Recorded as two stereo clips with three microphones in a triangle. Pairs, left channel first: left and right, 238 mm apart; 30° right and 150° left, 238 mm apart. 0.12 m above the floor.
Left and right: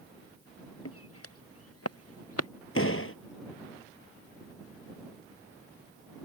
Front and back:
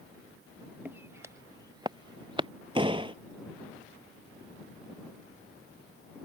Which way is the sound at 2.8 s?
85° left.